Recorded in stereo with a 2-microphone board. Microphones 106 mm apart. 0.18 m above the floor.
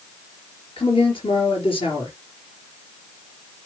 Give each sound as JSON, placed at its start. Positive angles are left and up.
{"t": 0.8, "sound": "a man speaking", "side_deg": 50, "distance_m": 3.5}